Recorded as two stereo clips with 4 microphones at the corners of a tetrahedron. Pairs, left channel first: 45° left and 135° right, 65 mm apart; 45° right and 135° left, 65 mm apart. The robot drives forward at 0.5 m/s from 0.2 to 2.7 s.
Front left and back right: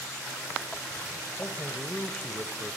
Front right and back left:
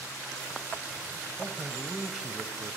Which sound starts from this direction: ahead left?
A man speaking, at 1.4 s.